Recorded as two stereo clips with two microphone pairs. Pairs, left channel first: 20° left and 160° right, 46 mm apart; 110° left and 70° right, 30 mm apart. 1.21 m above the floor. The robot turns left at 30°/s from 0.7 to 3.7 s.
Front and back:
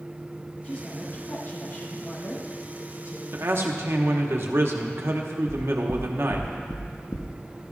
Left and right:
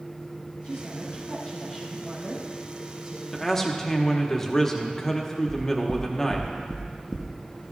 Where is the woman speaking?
80° left, 2.5 m; by 3.2 s 5° left, 2.5 m.